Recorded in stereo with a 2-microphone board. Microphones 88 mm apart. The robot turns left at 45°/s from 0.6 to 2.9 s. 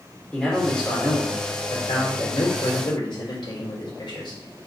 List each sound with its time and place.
0.3 s a man speaking: 175° left, 3 m; by 4.4 s 70° left, 3 m